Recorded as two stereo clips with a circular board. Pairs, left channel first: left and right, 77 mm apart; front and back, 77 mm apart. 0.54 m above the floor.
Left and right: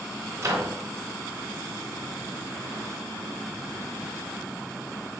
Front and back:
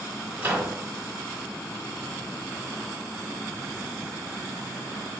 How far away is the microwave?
About 1.6 m.